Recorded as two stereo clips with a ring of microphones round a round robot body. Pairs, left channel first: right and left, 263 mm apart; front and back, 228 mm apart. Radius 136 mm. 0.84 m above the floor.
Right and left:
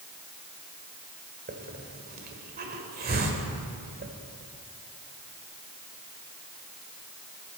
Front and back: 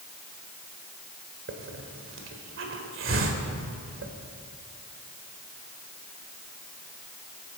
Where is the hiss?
145° left, 1.7 m.